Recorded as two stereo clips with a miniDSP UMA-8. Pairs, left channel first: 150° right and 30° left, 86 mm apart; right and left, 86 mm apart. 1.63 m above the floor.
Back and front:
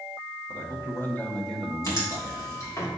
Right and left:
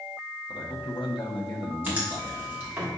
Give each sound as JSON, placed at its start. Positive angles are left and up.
{"t": 0.5, "sound": "a man speaking", "azimuth_deg": -105, "distance_m": 1.9}
{"t": 1.8, "sound": "writing", "azimuth_deg": 155, "distance_m": 2.5}